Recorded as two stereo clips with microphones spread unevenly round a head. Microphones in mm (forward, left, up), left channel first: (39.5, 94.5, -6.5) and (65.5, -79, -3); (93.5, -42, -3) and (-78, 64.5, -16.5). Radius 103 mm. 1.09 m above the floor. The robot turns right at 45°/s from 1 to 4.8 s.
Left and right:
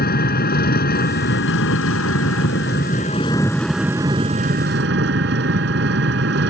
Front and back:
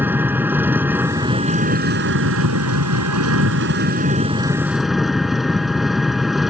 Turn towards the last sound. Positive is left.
turn(degrees=-120)